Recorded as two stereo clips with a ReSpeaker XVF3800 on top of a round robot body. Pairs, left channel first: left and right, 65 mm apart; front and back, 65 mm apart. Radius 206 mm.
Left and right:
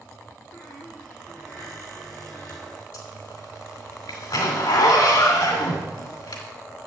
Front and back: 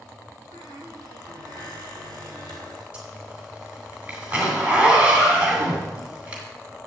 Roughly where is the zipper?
Left.